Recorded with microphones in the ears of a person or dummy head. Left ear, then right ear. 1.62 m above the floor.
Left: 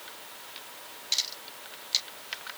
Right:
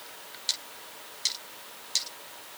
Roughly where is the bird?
I don't hear a bird.